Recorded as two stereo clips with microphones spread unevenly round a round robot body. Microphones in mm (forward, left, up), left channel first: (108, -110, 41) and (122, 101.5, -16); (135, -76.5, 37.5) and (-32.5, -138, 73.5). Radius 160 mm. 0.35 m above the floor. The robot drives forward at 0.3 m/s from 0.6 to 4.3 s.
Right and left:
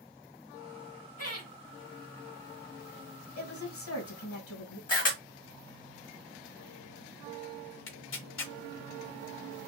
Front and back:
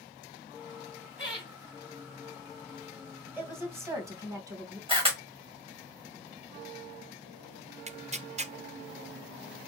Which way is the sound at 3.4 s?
75° right.